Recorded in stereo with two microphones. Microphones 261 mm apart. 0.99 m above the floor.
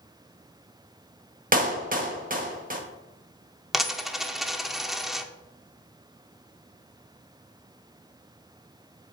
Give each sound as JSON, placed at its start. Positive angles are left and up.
{"t": 1.5, "sound": "a clap", "side_deg": -30, "distance_m": 1.4}
{"t": 3.7, "sound": "a dropped coin", "side_deg": 0, "distance_m": 0.6}